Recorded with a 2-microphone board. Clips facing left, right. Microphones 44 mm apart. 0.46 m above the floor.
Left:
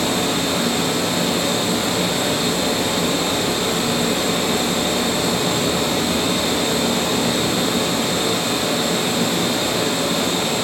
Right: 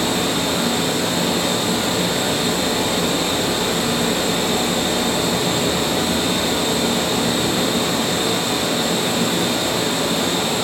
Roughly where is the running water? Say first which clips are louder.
Even; right.